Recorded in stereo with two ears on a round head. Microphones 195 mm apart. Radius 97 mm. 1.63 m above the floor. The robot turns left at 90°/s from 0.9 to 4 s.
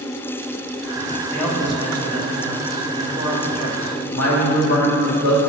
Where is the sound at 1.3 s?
15° left, 1.6 m; by 4.0 s 135° left, 1.6 m.